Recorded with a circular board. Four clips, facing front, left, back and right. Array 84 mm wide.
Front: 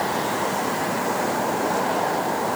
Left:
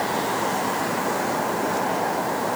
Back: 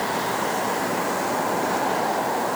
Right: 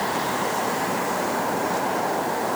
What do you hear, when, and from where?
Only background noise.